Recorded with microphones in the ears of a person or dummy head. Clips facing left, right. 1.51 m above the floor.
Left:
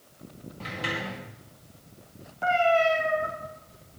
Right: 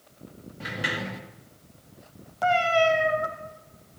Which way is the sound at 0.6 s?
15° right (ahead or behind).